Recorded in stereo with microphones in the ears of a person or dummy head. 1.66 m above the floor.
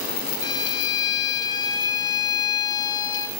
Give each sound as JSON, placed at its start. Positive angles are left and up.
{"t": 0.4, "sound": "a violin", "side_deg": 20, "distance_m": 1.9}